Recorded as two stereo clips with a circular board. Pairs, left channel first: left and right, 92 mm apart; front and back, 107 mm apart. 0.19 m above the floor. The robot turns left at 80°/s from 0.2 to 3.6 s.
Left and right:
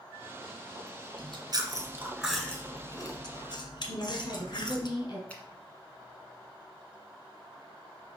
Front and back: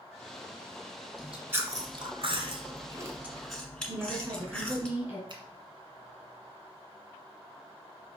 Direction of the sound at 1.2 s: 85° right.